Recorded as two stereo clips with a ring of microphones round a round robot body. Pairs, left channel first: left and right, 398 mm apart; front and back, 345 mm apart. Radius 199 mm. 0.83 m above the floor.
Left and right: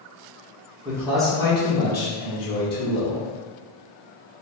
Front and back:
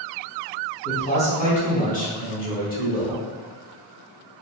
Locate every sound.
0.8 s a man speaking: 35° right, 1.0 m; by 3.3 s 60° left, 1.6 m